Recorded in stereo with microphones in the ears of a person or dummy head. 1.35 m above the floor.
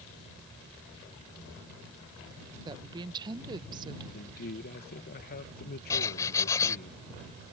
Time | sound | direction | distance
2.6 | a woman speaking | 25° right (ahead or behind) | ?
4.1 | a man speaking | 50° left (ahead or behind) | ?
5.9 | writing | 15° left (ahead or behind) | ?